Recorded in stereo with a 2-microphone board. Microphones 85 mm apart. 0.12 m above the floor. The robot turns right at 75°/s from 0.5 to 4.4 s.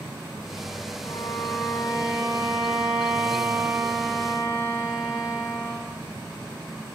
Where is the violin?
110° left, 4 m; by 5.9 s 5° left, 4 m.